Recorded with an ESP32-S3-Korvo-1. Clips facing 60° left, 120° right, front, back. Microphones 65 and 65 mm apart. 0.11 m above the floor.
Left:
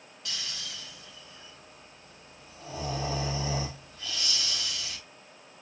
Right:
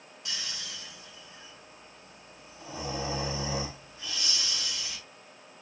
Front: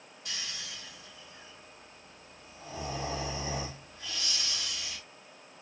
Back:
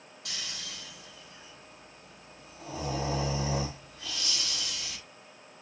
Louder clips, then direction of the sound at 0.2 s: Even, even; 165° left.